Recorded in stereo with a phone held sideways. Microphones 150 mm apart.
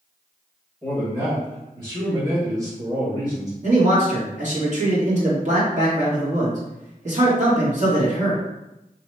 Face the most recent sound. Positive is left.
turn(degrees=-55)  # may be behind; listen again after turning